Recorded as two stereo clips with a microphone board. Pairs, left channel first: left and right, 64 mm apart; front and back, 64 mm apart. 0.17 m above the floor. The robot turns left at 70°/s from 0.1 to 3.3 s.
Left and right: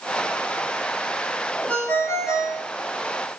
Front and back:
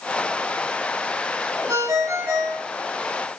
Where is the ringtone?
165° left, 1.4 m; by 2.7 s 100° left, 1.4 m.